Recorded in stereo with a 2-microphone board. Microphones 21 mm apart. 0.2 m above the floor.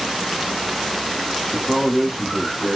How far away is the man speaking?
About 1.2 m.